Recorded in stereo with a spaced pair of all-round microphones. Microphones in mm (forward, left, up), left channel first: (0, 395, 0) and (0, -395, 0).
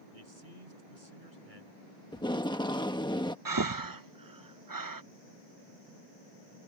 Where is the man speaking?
85° right.